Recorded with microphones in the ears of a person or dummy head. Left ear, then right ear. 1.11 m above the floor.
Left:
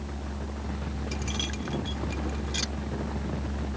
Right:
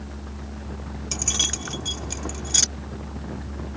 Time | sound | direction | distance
1.1 | keys jangling | 35° right (ahead or behind) | ?